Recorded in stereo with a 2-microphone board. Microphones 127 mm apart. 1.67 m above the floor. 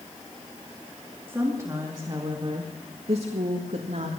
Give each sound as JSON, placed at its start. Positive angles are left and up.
{"t": 1.3, "sound": "a woman speaking", "side_deg": -20, "distance_m": 2.5}